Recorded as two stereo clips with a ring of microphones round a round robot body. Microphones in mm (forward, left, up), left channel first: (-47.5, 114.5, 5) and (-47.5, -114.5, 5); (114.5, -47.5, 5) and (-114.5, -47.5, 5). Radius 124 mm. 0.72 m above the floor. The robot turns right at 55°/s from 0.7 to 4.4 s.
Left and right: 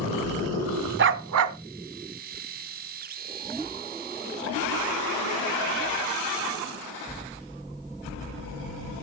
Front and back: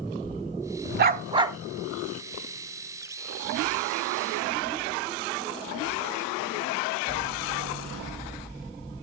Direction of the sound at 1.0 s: 130° right.